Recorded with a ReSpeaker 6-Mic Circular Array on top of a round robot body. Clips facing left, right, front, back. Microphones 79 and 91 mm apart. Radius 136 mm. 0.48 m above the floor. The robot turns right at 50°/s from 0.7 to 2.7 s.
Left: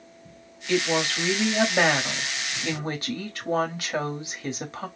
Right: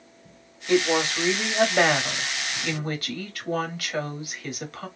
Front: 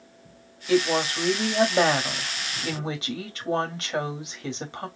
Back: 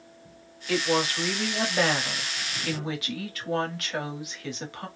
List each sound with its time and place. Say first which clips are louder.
0.7 s a woman speaking: right 3 dB, front 3 dB; 55° right, 1.4 m; by 4.9 s 45° left, 1.4 m